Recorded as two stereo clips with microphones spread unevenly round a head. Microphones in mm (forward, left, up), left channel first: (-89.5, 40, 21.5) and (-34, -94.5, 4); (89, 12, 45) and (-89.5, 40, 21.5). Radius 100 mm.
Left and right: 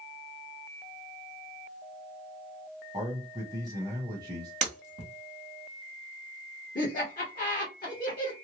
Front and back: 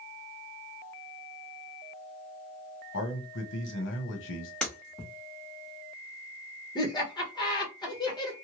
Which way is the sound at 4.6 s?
85° right.